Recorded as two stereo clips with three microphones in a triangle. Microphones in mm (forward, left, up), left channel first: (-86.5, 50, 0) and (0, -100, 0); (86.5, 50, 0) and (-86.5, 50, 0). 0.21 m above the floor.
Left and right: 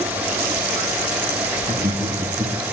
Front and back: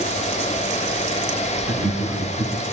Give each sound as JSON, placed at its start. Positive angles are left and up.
{"t": 1.6, "sound": "laughter", "azimuth_deg": -110, "distance_m": 3.0}